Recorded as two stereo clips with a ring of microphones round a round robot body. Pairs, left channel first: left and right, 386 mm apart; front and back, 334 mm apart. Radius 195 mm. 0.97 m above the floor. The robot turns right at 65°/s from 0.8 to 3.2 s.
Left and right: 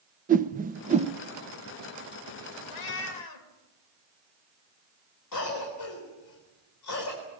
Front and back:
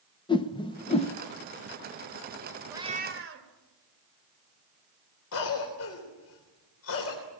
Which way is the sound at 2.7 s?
95° left.